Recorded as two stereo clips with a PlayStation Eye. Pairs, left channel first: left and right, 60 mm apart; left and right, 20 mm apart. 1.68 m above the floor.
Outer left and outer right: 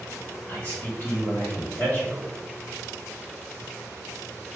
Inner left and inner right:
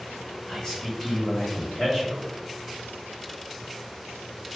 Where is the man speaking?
30° left (ahead or behind), 3 m.